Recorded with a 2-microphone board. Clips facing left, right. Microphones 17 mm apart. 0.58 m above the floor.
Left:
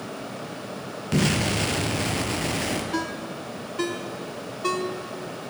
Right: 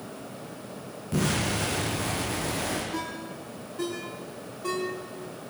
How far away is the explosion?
About 5 m.